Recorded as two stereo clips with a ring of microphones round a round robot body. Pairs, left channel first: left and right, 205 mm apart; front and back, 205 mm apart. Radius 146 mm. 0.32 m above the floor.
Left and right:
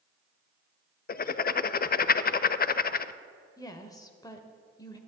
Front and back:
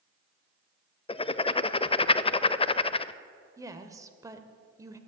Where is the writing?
60° left, 0.5 m.